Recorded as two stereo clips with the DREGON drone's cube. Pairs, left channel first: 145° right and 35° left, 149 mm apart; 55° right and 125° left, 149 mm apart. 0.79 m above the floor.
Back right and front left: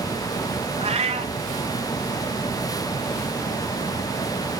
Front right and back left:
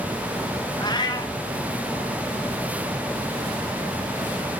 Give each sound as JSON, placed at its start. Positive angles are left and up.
{"t": 0.8, "sound": "a cat meowing", "azimuth_deg": 0, "distance_m": 1.1}